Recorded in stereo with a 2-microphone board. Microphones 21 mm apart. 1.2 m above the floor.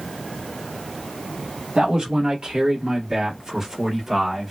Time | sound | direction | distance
1.8 | a man speaking | 65° right (ahead or behind) | 1.7 m